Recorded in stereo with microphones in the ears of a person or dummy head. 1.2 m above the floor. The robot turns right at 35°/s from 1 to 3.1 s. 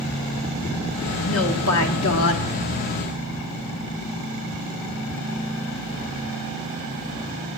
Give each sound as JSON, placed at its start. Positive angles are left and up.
{"t": 1.2, "sound": "a woman speaking", "azimuth_deg": 70, "distance_m": 1.4}